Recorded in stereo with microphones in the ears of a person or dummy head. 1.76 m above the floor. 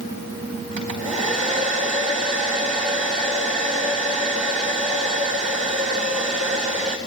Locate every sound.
0.8 s a hair dryer: 45° right (ahead or behind), 3.5 m